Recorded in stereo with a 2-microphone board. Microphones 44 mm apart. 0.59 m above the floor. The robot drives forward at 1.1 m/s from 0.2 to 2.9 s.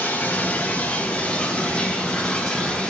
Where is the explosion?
No explosion in this recording.